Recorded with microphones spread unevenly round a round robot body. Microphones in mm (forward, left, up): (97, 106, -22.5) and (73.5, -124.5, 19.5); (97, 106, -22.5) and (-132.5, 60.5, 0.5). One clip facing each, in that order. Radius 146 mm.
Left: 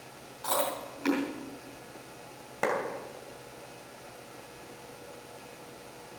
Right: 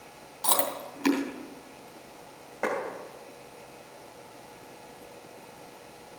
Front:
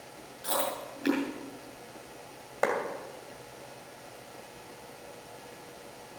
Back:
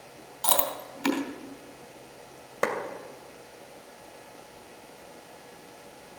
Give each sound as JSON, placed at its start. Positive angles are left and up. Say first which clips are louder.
{"t": 0.4, "sound": "chewing", "louder": "even, back 1 dB", "azimuth_deg": -150, "distance_m": 2.5}
{"t": 2.6, "sound": "a clap", "louder": "even, even", "azimuth_deg": 135, "distance_m": 2.5}